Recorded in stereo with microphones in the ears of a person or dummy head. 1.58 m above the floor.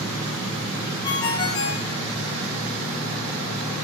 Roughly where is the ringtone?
Left.